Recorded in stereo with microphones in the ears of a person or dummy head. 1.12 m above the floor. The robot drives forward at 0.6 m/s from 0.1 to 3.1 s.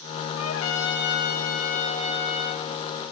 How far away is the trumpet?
About 0.7 m.